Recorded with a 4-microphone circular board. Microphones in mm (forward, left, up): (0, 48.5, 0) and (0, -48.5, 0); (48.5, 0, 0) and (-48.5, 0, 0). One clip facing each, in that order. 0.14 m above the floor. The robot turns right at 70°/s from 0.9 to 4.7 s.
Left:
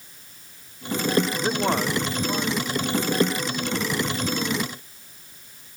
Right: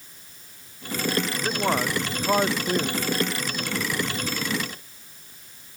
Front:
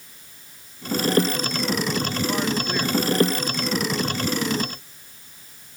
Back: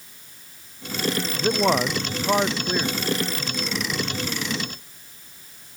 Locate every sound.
1.4 s a man speaking: 155° left; by 3.0 s 90° right